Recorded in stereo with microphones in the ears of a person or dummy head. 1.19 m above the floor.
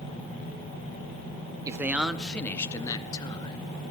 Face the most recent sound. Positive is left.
turn(degrees=25)  # may be behind; listen again after turning